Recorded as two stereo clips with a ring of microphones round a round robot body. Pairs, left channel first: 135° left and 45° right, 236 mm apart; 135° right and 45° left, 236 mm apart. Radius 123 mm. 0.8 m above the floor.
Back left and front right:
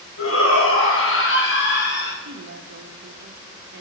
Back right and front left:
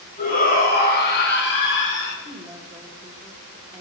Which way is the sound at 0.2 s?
165° left.